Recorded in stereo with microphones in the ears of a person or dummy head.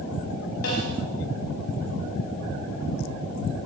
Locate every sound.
0.6 s a snare drum: 80° left, 5 m